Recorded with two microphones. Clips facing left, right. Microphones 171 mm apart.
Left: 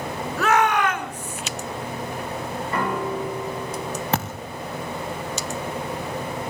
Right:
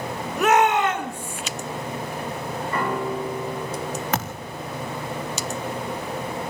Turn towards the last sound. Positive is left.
turn(degrees=35)  # may be behind; listen again after turning